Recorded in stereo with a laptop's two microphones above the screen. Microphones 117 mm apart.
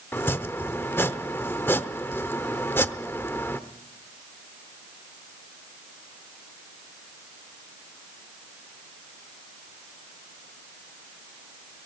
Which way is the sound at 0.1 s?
20° left (ahead or behind).